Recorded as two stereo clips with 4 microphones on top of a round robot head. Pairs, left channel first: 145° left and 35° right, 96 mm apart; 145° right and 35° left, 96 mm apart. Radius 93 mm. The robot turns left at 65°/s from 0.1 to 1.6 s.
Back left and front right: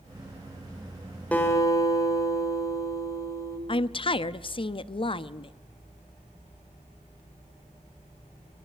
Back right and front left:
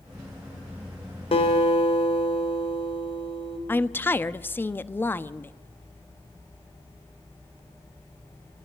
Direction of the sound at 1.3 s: 140° right.